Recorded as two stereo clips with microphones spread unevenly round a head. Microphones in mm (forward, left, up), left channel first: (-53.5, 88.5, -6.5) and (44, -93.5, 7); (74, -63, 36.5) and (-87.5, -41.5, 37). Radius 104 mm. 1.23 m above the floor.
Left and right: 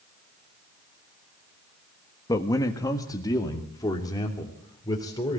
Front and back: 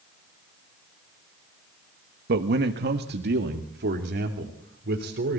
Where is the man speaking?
165° right, 1.2 m; by 5.4 s 170° right, 3.5 m.